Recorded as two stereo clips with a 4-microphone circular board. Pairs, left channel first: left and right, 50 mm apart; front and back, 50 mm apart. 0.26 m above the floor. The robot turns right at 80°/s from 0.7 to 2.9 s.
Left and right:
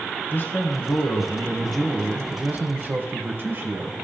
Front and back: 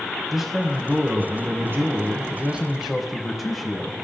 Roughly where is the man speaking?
Left.